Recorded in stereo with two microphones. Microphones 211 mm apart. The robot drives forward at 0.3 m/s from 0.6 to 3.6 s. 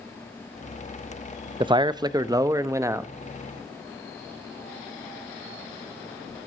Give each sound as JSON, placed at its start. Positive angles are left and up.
{"t": 1.6, "sound": "a man speaking", "side_deg": -25, "distance_m": 0.5}